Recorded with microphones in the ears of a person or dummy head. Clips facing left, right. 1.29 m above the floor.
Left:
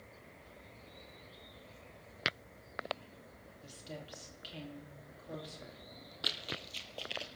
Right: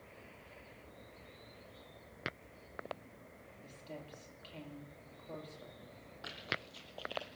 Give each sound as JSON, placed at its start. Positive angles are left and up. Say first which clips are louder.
{"t": 3.6, "sound": "a woman speaking", "louder": "left 1 dB", "side_deg": 10, "distance_m": 2.5}
{"t": 6.2, "sound": "running footsteps", "louder": "left 1 dB", "side_deg": 45, "distance_m": 2.5}